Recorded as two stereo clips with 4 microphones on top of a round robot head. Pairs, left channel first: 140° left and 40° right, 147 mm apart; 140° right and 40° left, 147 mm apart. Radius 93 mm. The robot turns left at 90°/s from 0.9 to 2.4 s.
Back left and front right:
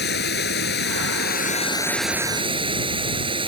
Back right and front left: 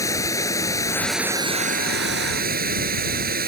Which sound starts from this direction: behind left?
Running water, at 0.0 s.